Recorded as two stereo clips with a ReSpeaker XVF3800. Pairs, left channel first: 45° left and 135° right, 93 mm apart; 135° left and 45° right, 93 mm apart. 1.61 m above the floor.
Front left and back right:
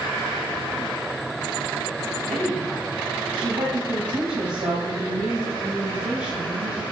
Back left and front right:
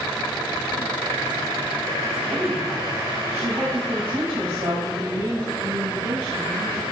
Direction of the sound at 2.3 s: 130° right.